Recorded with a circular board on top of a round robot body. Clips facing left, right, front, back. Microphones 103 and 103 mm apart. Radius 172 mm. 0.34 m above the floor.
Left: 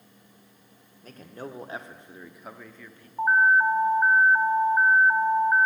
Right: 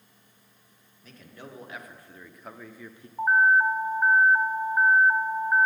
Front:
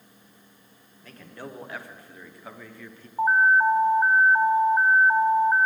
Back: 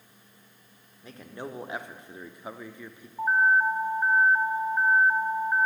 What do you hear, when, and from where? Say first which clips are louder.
1.0 s a man speaking: left 6 dB, back 2 dB; 115° left, 1.6 m; by 3.1 s 120° right, 1.1 m
3.2 s an alarm: even, front 3 dB; 20° left, 1.1 m